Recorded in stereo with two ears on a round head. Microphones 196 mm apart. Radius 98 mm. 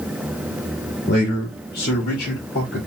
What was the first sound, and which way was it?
A man speaking, 55° left (ahead or behind).